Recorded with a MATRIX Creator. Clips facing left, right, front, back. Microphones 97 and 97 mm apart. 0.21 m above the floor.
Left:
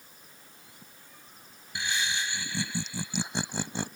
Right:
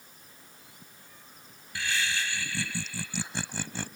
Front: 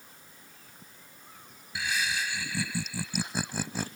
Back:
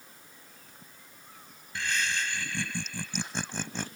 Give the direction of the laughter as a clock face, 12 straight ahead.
10 o'clock.